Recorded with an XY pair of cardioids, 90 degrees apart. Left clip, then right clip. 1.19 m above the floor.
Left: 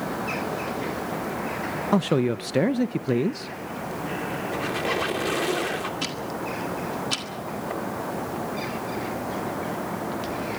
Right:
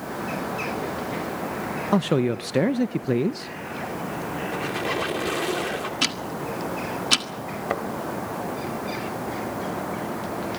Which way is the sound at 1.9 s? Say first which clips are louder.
Right 1 dB; 5° right.